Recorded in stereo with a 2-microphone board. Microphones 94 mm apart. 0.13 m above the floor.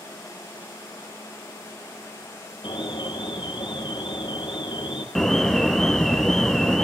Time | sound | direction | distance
2.6 | an alarm | 55° left (ahead or behind) | 4.5 m
5.2 | an alarm | 5° left (ahead or behind) | 1.3 m